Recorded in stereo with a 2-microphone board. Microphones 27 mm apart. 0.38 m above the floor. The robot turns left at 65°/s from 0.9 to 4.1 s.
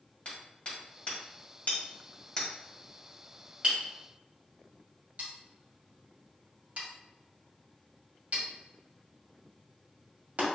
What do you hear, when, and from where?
0.2 s hammering: 45° left (ahead or behind), 1.6 m; by 10.5 s 60° right (ahead or behind), 1.6 m